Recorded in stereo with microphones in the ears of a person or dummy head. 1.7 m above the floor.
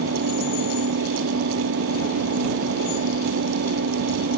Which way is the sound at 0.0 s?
65° right (ahead or behind).